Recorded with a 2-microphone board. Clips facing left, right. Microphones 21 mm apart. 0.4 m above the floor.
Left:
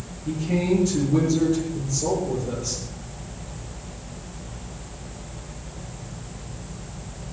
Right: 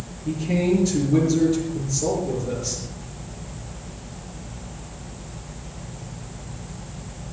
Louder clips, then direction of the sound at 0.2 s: Right 1 dB; 20° right (ahead or behind).